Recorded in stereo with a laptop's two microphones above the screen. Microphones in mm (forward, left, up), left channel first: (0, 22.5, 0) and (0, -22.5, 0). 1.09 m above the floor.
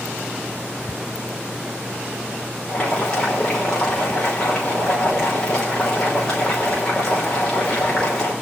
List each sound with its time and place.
2.7 s boiling: 15° left (ahead or behind), 3 m